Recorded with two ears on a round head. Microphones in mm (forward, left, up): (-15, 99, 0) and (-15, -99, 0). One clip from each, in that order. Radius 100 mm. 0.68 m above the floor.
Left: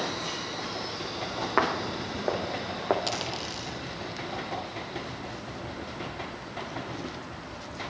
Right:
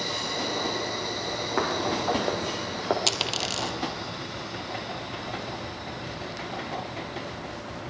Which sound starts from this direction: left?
Footsteps, at 1.6 s.